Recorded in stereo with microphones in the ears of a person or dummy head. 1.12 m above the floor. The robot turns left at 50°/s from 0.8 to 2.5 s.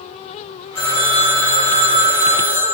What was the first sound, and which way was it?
A phone ringing, straight ahead.